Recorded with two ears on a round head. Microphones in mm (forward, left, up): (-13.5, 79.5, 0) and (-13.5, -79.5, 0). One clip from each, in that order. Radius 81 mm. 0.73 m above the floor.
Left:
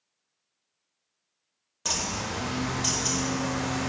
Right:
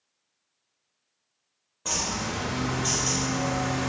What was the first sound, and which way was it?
A bird, 80° left.